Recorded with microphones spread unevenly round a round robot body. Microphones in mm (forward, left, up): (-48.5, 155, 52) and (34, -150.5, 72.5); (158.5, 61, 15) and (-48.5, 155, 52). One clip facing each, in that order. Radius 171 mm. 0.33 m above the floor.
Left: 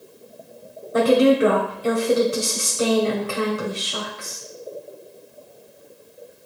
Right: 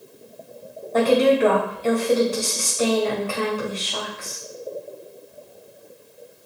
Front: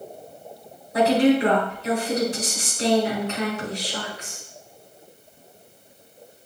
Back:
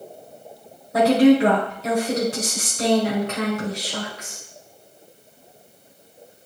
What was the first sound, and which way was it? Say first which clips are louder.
A woman speaking: left 1 dB, back 4 dB; 175° left.